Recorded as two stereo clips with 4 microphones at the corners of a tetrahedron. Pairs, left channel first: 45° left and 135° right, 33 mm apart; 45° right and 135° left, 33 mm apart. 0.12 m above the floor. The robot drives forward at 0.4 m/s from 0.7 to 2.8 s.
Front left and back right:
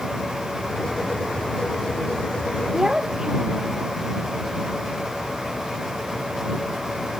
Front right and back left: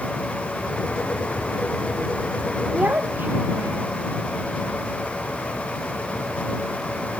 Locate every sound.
2.7 s a child speaking: 155° left